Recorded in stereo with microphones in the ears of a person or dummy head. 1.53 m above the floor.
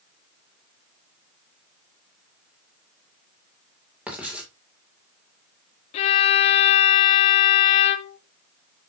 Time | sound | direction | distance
4.1 | writing | 5° right (ahead or behind) | 2.5 m
5.9 | a violin | 35° left (ahead or behind) | 0.7 m